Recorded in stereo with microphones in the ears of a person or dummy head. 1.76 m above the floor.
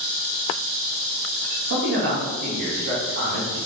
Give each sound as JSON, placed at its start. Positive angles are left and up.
{"t": 1.7, "sound": "a man speaking", "side_deg": -60, "distance_m": 1.8}